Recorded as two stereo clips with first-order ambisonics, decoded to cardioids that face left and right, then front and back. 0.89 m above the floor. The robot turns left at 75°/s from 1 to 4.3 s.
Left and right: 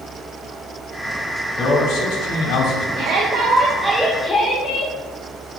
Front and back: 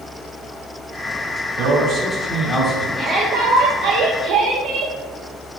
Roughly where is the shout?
Right.